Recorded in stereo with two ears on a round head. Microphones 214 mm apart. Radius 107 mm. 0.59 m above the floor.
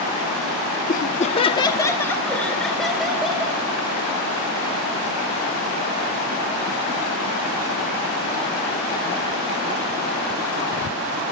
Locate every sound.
0.9 s laughter: 35° left (ahead or behind), 0.8 m; by 3.6 s 5° right (ahead or behind), 2.5 m